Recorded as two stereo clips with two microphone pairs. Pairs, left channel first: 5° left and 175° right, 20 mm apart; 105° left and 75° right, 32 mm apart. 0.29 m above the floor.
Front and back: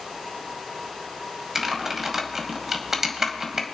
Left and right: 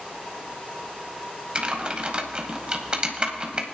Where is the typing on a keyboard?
115° right, 1.4 m.